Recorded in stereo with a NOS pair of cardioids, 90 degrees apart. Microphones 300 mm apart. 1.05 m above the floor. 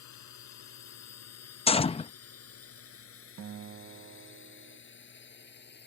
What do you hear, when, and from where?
0.0 s a drone: 65° left; by 5.9 s 35° left
1.7 s a gunshot: 20° left
3.4 s a guitar: 45° right